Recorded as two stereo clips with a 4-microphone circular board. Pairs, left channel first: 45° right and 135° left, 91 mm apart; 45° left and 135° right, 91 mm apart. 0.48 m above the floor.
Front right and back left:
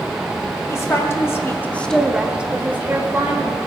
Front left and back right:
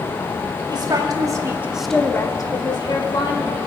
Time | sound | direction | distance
0.7 | a woman speaking | 100° right | 1.6 m